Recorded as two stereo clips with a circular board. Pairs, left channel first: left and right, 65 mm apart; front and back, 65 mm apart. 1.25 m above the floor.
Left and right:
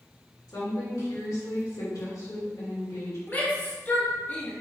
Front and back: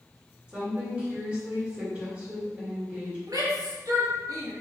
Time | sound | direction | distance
0.5 | a woman speaking | 110° left | 1.9 m
3.3 | a shout | 150° left | 1.5 m